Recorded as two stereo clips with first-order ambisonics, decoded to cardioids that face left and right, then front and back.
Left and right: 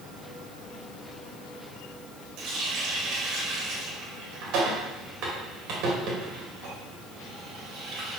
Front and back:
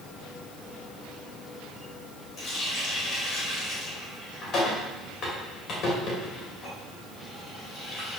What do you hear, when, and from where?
2.4 s a running tap: 50° right, 3 m